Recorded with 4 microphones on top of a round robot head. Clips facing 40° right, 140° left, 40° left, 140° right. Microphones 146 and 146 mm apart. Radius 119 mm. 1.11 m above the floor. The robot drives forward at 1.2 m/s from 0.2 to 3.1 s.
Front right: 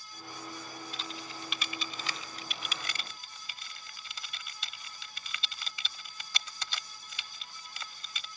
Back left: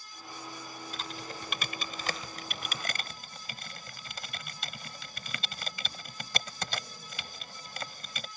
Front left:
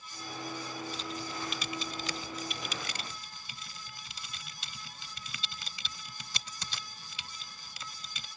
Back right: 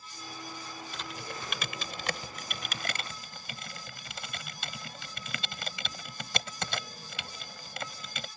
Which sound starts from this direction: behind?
Typing on a keyboard, at 0.9 s.